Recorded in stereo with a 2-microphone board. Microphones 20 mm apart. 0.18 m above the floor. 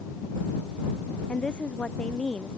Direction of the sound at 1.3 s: 55° left (ahead or behind).